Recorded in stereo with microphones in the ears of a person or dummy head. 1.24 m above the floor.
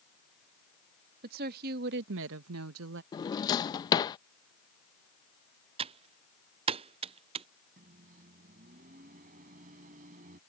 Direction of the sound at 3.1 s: 30° left (ahead or behind).